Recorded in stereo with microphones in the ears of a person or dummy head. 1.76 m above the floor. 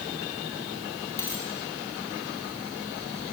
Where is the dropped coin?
15° left (ahead or behind), 2.5 m.